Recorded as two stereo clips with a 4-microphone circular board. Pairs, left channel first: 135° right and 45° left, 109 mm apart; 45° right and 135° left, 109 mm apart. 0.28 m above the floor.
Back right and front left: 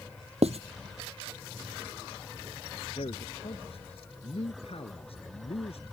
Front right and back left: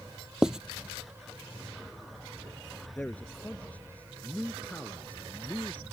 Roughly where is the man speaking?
Behind right.